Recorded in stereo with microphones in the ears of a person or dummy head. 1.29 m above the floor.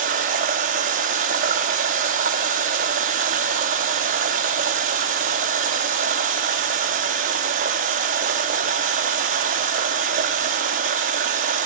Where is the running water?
40° right (ahead or behind), 0.9 m.